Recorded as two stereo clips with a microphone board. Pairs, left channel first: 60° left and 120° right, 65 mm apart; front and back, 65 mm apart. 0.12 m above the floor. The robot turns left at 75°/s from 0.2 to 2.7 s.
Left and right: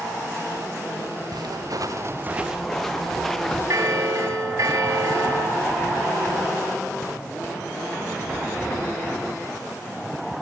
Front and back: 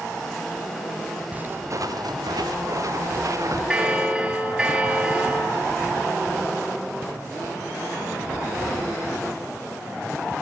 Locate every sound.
1.3 s footsteps: 110° right, 3 m; by 3.6 s 145° left, 1.1 m
3.7 s a bell: 110° right, 2.5 m